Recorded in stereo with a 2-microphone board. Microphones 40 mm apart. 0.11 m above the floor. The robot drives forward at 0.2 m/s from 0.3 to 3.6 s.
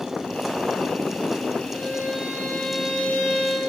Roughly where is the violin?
Left.